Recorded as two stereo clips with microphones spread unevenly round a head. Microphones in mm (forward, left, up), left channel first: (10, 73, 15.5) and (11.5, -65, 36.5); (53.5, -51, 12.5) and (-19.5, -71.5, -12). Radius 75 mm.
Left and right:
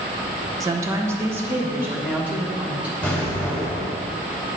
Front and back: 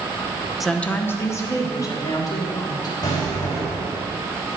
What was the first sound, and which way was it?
A woman speaking, 55° right.